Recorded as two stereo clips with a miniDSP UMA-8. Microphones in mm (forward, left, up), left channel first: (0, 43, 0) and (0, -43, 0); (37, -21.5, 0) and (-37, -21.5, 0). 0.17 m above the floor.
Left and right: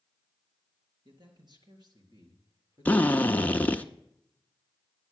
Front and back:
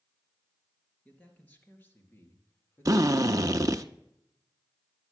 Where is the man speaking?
70° right, 3.5 m; by 3.9 s 45° right, 4 m.